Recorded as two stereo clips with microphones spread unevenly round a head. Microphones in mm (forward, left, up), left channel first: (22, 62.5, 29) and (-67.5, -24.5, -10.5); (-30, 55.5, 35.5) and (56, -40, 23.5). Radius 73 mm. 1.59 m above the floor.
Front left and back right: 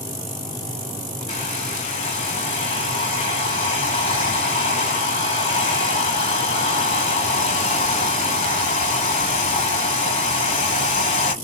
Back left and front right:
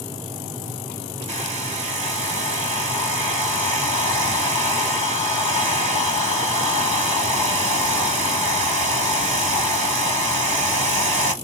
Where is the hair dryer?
5° right, 2.5 m.